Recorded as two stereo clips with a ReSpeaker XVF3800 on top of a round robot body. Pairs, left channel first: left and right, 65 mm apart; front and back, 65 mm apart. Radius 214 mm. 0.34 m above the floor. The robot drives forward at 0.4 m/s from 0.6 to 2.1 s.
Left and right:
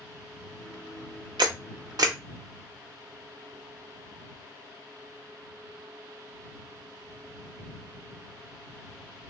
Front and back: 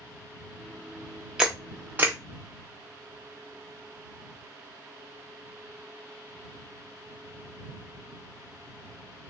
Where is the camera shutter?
100° right, 0.8 m; by 2.2 s 120° right, 0.9 m.